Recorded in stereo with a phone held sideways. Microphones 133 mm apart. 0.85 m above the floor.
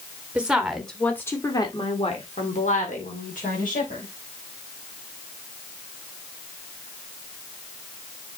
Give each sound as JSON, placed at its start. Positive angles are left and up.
{"t": 0.3, "sound": "a woman speaking", "side_deg": -10, "distance_m": 3.0}